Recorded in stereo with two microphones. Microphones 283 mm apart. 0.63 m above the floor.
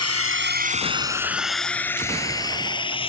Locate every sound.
0.0 s a drone: 65° right (ahead or behind); by 3.1 s 20° left (ahead or behind)